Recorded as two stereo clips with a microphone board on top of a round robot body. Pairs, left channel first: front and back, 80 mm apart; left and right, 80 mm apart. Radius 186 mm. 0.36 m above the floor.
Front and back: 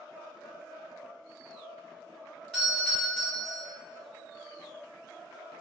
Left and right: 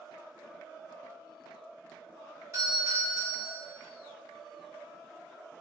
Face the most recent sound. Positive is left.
turn(degrees=-85)